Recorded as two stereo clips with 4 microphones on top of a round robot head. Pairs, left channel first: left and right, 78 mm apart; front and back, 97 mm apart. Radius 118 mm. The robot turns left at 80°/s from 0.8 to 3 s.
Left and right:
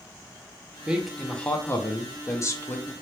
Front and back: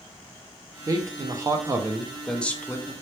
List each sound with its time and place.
0.9 s a man speaking: 160° right, 0.6 m; by 2.9 s 35° left, 0.6 m